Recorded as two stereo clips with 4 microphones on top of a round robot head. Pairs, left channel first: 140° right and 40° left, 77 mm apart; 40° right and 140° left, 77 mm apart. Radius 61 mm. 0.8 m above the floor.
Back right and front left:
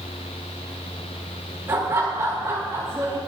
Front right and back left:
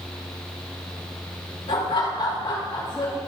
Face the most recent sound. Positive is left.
turn(degrees=-10)